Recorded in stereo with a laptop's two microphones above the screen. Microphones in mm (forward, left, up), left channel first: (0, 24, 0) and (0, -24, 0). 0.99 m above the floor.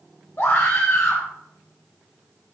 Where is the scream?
55° left (ahead or behind), 5 m.